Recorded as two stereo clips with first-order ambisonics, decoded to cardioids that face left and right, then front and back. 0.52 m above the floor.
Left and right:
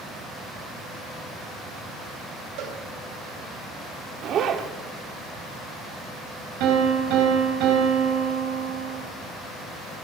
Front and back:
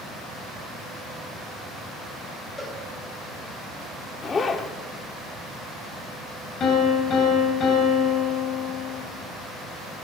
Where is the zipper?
60° right, 0.9 m.